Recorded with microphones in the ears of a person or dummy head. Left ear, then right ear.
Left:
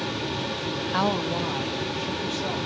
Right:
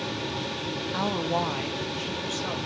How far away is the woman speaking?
About 0.5 m.